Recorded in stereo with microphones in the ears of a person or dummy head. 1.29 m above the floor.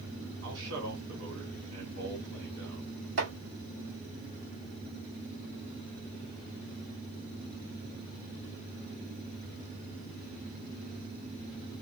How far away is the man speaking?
About 2.5 m.